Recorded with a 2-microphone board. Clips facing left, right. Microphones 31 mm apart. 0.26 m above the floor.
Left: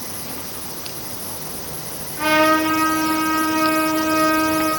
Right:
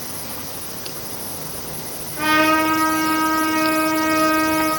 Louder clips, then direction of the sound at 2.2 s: Even; centre (ahead or behind).